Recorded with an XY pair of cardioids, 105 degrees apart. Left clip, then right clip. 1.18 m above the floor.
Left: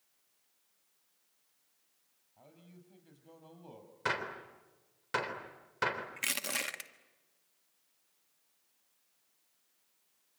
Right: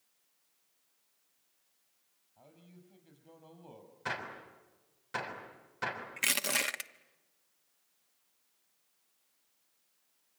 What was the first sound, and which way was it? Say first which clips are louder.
A man speaking: even; straight ahead.